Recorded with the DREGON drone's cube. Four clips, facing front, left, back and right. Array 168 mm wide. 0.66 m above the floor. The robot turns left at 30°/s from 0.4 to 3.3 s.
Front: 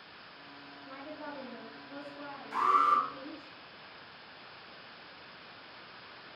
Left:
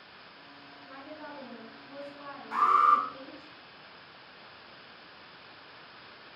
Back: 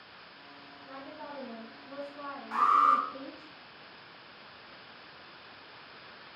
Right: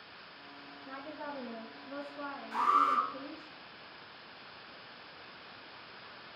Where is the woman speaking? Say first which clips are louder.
Right 2 dB, even; 125° right, 5 m; by 3.5 s 160° left, 5 m.